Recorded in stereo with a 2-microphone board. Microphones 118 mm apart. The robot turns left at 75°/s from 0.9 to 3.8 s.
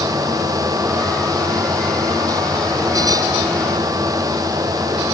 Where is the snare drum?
I don't hear a snare drum.